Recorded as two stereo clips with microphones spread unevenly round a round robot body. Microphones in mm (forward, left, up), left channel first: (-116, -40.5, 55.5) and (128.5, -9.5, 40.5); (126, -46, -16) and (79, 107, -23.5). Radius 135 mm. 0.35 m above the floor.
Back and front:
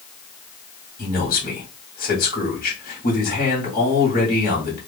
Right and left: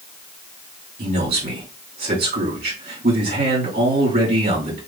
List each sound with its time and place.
1.0 s a man speaking: 135° left, 2.5 m